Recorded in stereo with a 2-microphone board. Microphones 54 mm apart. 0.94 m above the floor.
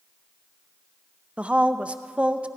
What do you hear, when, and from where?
1.4 s a woman speaking: 20° right (ahead or behind), 0.5 m